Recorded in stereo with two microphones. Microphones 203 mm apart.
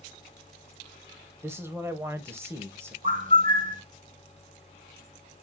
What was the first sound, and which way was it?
A man speaking, 10° right (ahead or behind).